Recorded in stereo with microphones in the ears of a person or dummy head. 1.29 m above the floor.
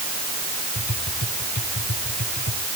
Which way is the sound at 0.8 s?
55° left (ahead or behind).